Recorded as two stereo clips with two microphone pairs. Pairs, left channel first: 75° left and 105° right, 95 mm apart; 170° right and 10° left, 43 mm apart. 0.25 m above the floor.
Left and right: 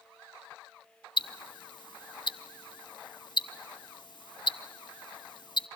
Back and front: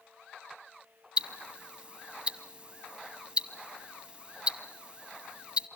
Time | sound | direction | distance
1.2 | ticking | 65° left | 0.7 m